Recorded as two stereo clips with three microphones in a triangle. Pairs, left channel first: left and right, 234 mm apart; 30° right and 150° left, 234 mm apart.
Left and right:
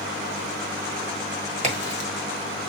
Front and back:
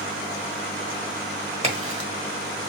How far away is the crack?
About 1.3 m.